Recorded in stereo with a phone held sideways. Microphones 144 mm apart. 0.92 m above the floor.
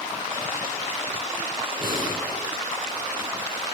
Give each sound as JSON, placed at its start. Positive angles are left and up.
{"t": 1.8, "sound": "breathing", "side_deg": 70, "distance_m": 6.5}